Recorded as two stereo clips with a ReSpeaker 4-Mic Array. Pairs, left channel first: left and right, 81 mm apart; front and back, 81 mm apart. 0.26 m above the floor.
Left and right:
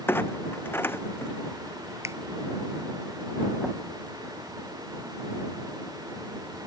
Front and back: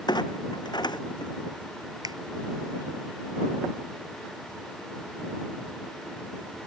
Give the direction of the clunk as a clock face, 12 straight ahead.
11 o'clock.